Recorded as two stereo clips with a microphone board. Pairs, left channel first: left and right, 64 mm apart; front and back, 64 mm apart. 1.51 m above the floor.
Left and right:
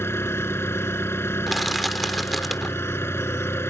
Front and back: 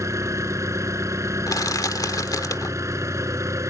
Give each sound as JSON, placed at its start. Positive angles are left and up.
{"t": 0.0, "sound": "an engine running", "azimuth_deg": 140}
{"t": 1.5, "sound": "crushing", "azimuth_deg": 0}